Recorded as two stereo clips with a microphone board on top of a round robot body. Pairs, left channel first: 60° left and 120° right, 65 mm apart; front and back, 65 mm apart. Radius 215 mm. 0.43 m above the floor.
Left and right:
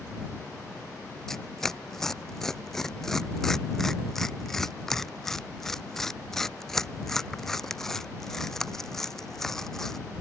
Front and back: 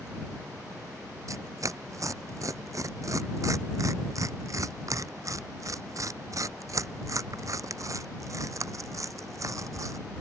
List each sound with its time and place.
1.3 s tearing paper: 145° left